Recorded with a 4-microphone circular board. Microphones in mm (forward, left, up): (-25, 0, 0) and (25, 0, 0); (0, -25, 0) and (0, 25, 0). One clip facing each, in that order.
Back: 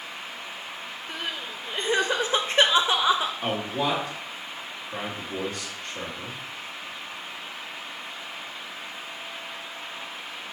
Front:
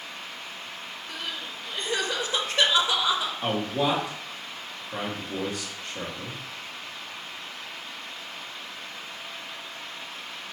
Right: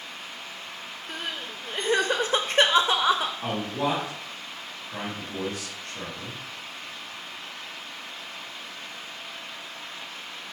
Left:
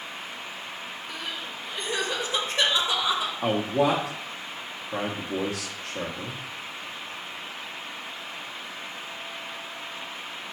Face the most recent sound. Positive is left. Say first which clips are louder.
# front 1 dB, left 5 dB
turn(degrees=90)